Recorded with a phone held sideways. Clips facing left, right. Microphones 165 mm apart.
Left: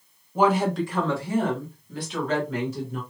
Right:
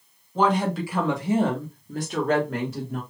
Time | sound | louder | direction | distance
0.3 | a woman speaking | left 1 dB | 10° left (ahead or behind) | 1.2 m